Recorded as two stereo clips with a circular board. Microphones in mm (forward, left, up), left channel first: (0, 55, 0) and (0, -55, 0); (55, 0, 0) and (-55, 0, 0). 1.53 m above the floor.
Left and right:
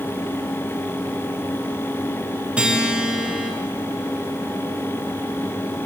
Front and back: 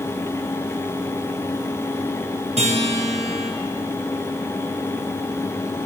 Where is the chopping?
I don't hear chopping.